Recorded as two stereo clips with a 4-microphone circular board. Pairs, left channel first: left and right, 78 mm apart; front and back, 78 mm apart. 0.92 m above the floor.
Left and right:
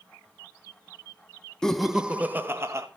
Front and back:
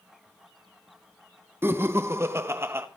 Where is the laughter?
165° left, 0.8 m; by 2.9 s 130° right, 1.2 m.